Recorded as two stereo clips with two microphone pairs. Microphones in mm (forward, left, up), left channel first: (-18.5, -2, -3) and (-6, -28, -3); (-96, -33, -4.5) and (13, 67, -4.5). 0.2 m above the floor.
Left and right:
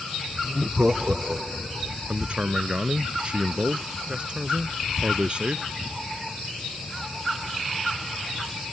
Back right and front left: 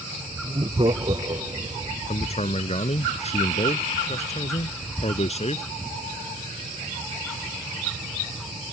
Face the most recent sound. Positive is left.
turn(degrees=-105)